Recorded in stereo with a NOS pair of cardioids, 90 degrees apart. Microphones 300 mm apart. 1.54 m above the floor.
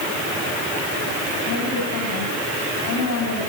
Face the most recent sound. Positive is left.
turn(degrees=65)